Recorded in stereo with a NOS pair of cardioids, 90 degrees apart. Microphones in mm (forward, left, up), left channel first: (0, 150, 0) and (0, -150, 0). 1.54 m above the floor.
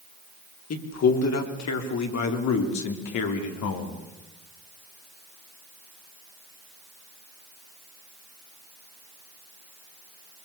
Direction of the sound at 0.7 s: 55° left.